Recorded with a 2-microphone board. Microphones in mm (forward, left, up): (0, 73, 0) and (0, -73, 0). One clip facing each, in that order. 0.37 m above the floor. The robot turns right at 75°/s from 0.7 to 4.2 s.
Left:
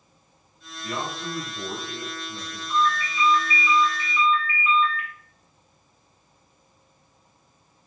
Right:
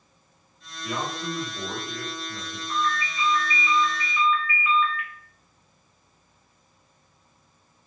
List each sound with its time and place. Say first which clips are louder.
0.8 s a man speaking: right 1 dB; straight behind, 1.3 m; by 2.6 s 45° right, 1.3 m
2.7 s a ringtone: left 4 dB; 90° right, 1.5 m; by 5.1 s 20° left, 1.5 m